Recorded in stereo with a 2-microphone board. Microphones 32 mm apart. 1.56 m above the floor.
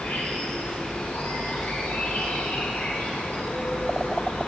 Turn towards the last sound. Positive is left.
turn(degrees=75)  # may be behind; listen again after turning